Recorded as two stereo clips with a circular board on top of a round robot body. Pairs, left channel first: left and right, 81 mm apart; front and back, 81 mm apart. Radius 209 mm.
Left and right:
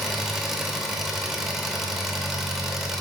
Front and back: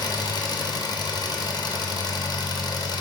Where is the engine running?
Straight ahead, 1.4 m.